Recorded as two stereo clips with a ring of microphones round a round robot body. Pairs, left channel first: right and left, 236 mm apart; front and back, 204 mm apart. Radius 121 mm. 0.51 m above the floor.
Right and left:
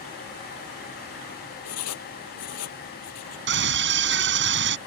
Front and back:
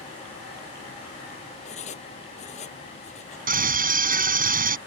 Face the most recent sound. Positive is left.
turn(degrees=135)